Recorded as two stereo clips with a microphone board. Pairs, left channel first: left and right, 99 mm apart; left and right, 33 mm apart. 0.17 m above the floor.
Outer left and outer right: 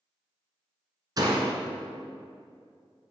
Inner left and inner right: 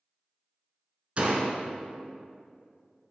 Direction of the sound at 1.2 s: 40° right (ahead or behind).